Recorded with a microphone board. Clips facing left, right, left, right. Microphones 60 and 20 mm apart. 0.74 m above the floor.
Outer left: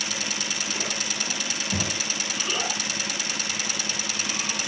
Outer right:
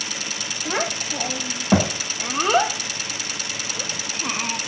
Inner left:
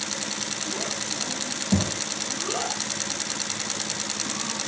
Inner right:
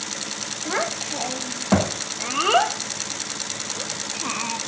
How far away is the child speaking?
About 2.5 m.